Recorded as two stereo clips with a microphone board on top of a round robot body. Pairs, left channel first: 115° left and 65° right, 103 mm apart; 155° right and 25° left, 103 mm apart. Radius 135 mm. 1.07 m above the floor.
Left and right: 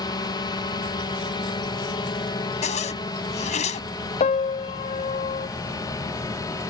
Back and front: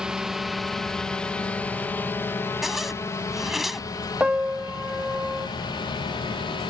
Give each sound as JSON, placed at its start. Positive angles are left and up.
{"t": 0.0, "sound": "a drone", "azimuth_deg": 105}
{"t": 2.6, "sound": "a zipper", "azimuth_deg": 110}
{"t": 4.2, "sound": "a piano", "azimuth_deg": 105}